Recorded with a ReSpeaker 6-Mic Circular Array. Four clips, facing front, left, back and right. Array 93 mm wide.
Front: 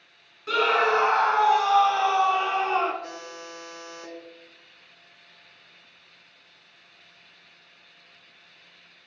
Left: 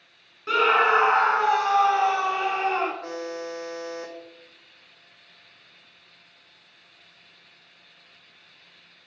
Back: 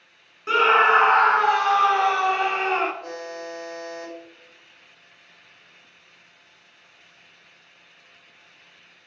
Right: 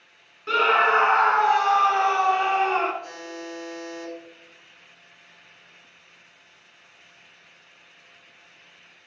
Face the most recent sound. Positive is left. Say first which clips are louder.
# left 4 dB, back 5 dB
turn(degrees=85)